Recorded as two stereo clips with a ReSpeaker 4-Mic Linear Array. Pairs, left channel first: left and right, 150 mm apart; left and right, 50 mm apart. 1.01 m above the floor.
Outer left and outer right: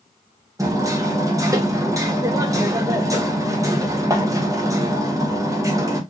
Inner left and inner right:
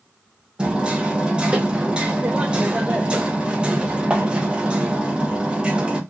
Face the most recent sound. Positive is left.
turn(degrees=-25)  # may be behind; listen again after turning